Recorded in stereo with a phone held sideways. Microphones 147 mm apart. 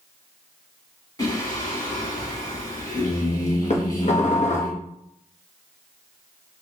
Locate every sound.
1.2 s singing: 25° left (ahead or behind), 1.6 m
3.7 s dishes clattering: 50° left (ahead or behind), 0.6 m